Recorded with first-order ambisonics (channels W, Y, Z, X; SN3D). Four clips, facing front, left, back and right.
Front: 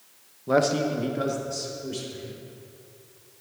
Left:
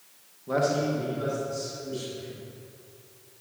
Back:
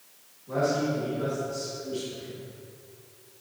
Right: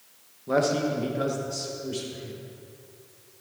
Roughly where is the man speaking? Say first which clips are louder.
Right 1 dB, front 4 dB; ahead.